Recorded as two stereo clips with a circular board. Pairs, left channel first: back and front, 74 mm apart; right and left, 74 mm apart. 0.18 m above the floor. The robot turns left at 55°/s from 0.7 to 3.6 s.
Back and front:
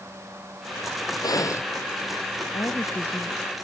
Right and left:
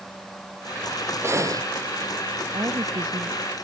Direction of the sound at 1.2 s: 150° left.